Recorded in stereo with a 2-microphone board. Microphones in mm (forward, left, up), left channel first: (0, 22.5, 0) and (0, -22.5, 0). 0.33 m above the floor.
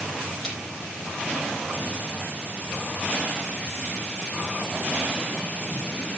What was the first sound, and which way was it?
A splash, 15° left (ahead or behind).